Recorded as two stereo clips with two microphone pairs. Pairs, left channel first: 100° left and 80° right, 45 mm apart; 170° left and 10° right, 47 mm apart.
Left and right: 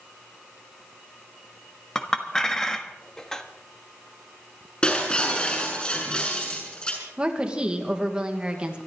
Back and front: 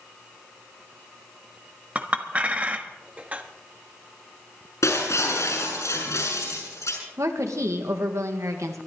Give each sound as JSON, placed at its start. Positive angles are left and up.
{"t": 1.9, "sound": "a clink", "azimuth_deg": 30, "distance_m": 1.2}
{"t": 4.8, "sound": "breaking glass", "azimuth_deg": 165, "distance_m": 6.5}
{"t": 7.2, "sound": "a woman speaking", "azimuth_deg": -10, "distance_m": 2.0}